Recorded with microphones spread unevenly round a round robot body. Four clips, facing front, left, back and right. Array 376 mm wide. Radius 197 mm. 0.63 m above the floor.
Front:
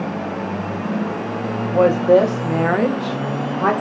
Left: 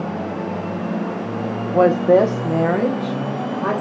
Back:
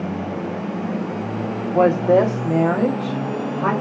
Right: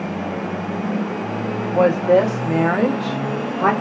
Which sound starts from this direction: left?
A woman speaking, at 1.7 s.